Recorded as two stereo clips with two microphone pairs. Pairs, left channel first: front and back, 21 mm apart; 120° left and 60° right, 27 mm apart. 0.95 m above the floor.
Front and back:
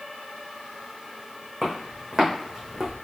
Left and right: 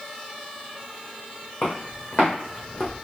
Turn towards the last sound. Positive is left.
turn(degrees=115)